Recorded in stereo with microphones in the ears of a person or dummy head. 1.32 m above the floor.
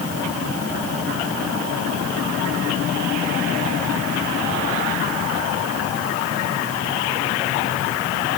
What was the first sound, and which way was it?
Only background noise.